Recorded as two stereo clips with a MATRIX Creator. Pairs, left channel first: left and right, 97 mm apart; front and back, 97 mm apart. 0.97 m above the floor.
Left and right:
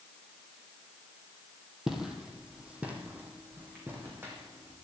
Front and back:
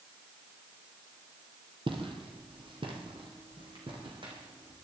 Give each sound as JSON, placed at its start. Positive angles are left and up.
{"t": 1.9, "sound": "footsteps", "azimuth_deg": -175, "distance_m": 1.8}